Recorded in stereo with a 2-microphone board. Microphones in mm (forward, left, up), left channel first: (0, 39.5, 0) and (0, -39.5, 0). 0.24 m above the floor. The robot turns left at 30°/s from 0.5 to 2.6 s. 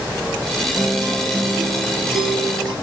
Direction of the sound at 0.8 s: 45° right.